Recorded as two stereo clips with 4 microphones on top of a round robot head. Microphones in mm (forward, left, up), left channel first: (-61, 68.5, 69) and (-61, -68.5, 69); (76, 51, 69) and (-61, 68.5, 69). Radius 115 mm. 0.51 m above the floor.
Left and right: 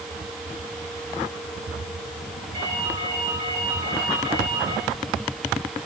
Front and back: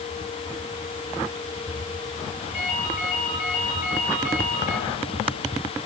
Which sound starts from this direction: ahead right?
A ringtone, at 2.5 s.